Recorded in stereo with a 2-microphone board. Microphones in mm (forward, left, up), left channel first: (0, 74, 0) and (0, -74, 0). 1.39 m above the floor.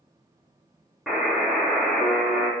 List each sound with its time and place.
1.1 s a buzzer: centre (ahead or behind), 0.7 m